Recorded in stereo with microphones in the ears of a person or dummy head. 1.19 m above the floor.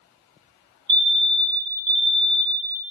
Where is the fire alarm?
25° right (ahead or behind), 1.1 m.